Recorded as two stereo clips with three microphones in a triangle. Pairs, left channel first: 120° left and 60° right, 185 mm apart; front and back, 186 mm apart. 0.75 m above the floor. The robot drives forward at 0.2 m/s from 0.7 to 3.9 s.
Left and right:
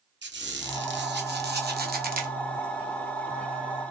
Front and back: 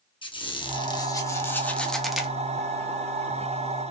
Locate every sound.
0.2 s a squeak: 65° right, 0.7 m; by 2.3 s 95° right, 0.6 m